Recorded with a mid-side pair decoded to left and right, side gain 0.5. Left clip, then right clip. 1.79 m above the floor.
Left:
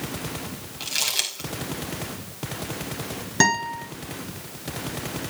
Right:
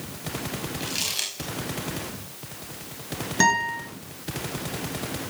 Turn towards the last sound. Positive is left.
turn(degrees=20)